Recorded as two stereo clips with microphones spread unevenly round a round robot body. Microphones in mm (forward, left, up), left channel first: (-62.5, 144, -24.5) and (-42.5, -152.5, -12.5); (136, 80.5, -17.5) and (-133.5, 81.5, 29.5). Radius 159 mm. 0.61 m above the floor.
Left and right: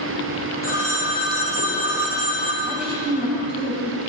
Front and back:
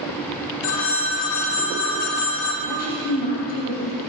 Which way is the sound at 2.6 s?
Straight ahead.